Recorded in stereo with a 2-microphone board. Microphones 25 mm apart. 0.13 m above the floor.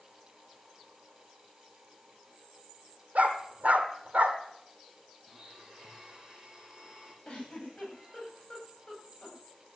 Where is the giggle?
40° left (ahead or behind), 9.5 m.